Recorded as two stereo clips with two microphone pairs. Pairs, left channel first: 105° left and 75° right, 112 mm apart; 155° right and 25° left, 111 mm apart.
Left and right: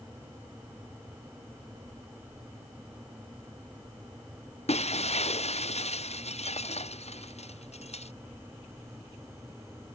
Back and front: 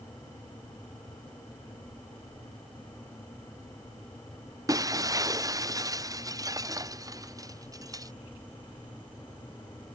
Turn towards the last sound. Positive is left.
turn(degrees=85)